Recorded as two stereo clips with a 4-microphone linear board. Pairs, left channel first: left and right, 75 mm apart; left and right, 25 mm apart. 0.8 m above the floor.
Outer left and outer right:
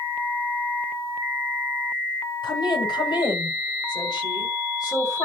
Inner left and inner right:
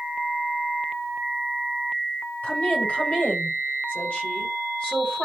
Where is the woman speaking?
75° left (ahead or behind), 3.5 m; by 5.2 s 50° left (ahead or behind), 5 m.